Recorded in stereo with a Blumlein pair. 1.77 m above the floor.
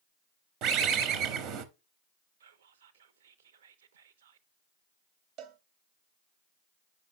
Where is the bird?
35° right, 0.9 m.